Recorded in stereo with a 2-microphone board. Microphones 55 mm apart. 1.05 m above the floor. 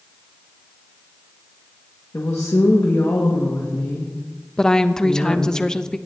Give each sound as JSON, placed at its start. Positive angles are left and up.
{"t": 2.1, "sound": "a woman speaking", "side_deg": 70, "distance_m": 1.6}
{"t": 4.6, "sound": "a woman speaking", "side_deg": 15, "distance_m": 0.6}